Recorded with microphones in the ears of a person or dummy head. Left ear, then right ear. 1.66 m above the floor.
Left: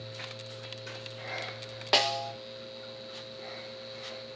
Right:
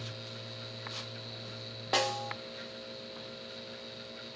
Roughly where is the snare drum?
Left.